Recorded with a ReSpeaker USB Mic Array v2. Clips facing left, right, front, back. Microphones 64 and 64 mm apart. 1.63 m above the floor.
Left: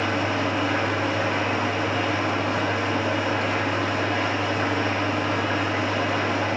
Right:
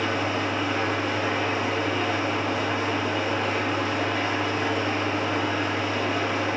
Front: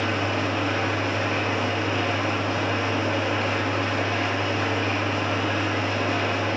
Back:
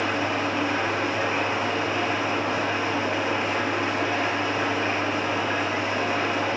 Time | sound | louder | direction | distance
0.0 | an engine running | left 2 dB, even | 115° left | 6.5 m